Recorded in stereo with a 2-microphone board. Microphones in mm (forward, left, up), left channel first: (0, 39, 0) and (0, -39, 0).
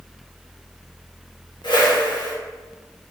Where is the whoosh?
70° left (ahead or behind), 0.6 m.